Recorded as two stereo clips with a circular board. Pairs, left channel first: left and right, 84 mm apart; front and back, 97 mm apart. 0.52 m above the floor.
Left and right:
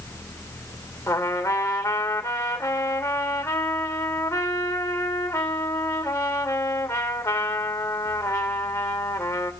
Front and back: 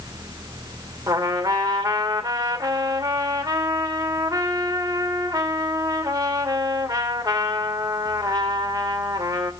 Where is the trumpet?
135° left, 2.0 m.